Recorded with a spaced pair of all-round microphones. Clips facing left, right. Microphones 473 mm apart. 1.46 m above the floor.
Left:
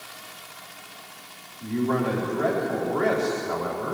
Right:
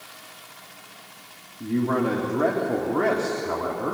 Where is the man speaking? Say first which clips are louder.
Right 2 dB; 65° right (ahead or behind), 3.5 m.